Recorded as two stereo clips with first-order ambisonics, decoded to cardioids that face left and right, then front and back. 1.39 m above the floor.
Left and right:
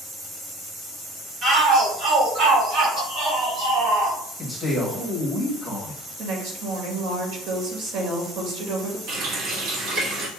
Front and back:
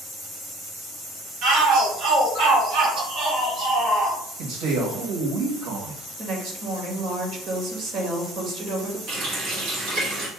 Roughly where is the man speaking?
Behind.